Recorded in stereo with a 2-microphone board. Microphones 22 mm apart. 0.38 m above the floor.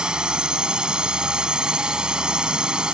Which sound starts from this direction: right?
A drone, at 0.0 s.